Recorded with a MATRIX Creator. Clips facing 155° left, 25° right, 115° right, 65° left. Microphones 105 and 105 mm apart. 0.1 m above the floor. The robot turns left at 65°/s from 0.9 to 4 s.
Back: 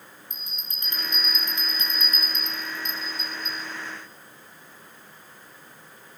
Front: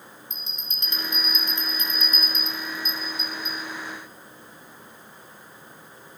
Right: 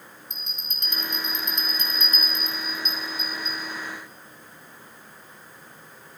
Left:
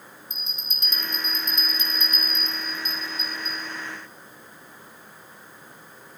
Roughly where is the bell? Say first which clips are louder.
Front 2 dB, left 3 dB; right.